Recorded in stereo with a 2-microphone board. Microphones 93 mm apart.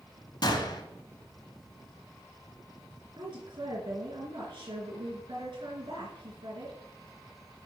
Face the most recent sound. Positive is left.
turn(degrees=-65)  # may be behind; listen again after turning